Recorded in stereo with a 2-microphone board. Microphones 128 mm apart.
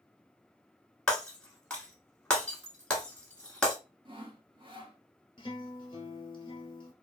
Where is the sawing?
40° right (ahead or behind), 0.8 m.